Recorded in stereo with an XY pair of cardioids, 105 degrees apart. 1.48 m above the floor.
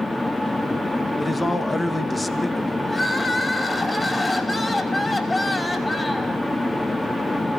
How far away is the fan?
About 1.9 m.